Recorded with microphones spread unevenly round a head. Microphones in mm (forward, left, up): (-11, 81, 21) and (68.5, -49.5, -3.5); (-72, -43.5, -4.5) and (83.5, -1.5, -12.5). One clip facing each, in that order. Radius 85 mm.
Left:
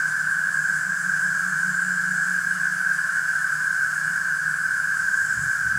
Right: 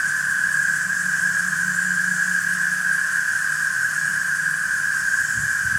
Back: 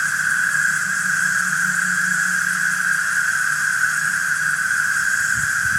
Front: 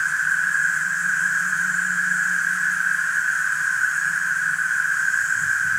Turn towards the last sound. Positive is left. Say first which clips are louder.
# right 1 dB, back 2 dB
turn(degrees=-125)